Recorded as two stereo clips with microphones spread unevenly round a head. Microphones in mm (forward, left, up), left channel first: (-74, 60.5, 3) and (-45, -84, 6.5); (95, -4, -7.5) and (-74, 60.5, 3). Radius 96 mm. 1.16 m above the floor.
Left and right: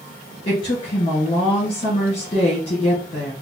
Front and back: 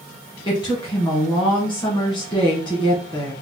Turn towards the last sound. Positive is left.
turn(degrees=40)